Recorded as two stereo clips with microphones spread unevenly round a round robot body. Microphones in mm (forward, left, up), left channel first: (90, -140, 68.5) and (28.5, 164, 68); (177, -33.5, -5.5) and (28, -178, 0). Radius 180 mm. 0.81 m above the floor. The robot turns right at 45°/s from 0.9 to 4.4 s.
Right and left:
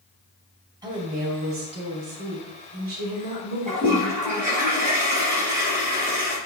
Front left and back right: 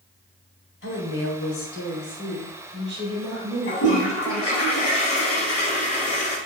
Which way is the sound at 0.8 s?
25° left.